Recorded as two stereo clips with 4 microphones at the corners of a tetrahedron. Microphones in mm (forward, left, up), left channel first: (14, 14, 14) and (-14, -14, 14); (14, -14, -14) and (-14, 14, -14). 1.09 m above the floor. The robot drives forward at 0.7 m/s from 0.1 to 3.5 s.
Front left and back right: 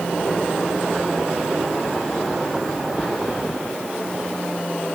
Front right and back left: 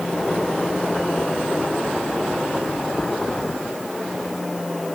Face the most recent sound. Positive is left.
No sound to turn to.